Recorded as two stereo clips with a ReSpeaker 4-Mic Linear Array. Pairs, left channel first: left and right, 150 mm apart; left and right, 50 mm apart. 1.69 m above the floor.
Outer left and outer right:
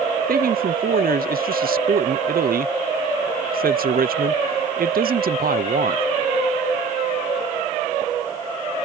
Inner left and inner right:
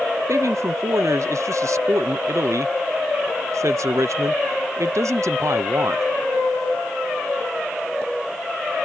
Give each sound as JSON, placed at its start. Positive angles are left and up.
{"t": 0.3, "sound": "a man speaking", "side_deg": -75}